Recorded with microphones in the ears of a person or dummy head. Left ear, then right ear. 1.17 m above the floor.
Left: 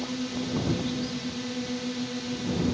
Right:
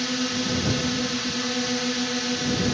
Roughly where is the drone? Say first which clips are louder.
Right 7 dB; right.